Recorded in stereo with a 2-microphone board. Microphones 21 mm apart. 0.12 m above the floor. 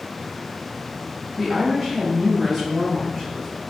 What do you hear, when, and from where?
1.4 s a woman speaking: 30° right (ahead or behind), 1.9 m; by 3.6 s 5° right (ahead or behind), 1.5 m